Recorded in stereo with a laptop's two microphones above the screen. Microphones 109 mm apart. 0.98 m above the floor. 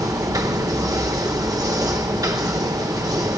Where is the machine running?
30° right (ahead or behind), 1.0 m.